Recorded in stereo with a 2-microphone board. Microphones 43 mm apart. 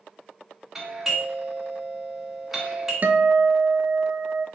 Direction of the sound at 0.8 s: 5° right (ahead or behind).